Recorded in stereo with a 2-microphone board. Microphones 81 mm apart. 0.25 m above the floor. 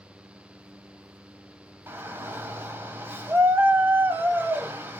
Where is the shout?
30° right (ahead or behind), 1.0 m.